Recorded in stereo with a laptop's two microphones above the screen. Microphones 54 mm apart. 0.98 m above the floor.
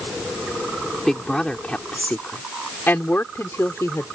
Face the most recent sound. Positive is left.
turn(degrees=55)  # may be behind; listen again after turning